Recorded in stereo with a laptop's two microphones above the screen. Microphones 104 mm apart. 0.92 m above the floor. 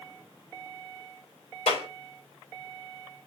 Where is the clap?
80° left, 3 m.